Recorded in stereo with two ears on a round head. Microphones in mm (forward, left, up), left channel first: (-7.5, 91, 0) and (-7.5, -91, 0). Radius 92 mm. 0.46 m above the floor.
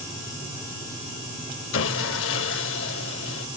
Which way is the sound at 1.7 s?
65° left (ahead or behind).